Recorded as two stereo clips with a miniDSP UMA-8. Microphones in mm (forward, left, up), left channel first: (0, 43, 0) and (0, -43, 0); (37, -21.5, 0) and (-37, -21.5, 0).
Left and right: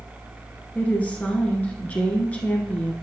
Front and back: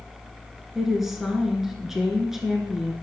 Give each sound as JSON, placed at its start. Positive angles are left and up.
{"t": 0.8, "sound": "a woman speaking", "azimuth_deg": 105, "distance_m": 1.1}